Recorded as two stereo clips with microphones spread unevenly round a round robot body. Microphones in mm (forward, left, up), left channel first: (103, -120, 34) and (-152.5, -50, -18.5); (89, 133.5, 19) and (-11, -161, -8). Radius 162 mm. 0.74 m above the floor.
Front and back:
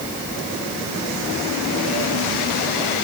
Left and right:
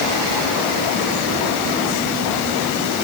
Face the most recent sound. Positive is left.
No sound to turn to.